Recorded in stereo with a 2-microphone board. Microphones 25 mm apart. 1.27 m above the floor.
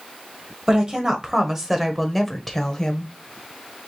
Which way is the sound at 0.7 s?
30° right (ahead or behind).